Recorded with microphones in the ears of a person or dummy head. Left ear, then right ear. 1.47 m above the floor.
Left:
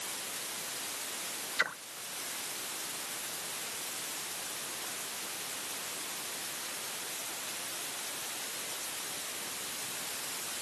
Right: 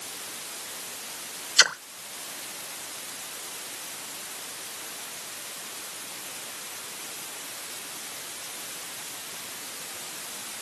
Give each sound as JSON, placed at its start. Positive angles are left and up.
{"t": 1.6, "sound": "a splash", "side_deg": -80}